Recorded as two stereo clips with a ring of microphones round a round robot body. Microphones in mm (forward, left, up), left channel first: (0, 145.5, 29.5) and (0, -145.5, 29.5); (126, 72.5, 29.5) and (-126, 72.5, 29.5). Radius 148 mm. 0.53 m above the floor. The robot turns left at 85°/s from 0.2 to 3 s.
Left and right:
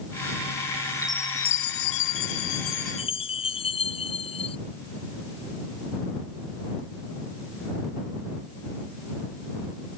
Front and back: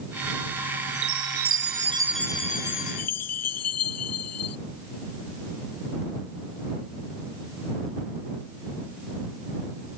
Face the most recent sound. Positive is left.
turn(degrees=20)